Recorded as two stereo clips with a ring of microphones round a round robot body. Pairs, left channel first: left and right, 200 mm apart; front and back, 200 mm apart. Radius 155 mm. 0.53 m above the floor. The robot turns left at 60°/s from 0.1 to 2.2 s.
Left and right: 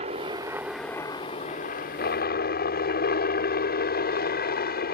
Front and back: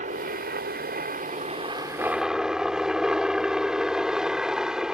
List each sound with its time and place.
0.0 s a helicopter: 140° right; by 4.9 s 95° left